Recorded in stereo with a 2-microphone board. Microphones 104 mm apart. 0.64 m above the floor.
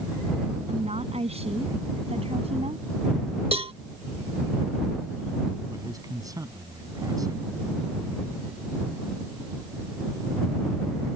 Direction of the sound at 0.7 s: 80° right.